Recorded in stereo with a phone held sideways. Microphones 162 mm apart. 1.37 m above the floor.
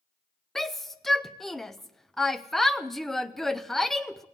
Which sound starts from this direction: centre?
A shout, at 0.6 s.